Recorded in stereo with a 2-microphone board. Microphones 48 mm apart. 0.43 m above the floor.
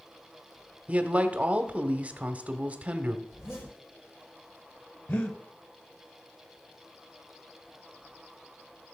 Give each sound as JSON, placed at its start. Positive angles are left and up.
{"t": 0.9, "sound": "a man speaking", "side_deg": -30, "distance_m": 1.2}
{"t": 3.3, "sound": "a zipper", "side_deg": 60, "distance_m": 6.5}
{"t": 5.1, "sound": "breathing", "side_deg": 45, "distance_m": 1.3}